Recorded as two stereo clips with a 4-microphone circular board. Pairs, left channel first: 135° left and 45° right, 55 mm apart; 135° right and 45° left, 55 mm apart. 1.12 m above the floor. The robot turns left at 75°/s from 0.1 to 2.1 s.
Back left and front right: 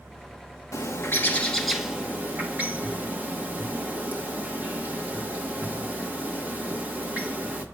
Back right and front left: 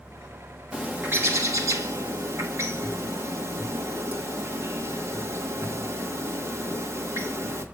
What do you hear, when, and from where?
0.7 s a bird: 120° left, 1.2 m; by 7.7 s 15° left, 1.2 m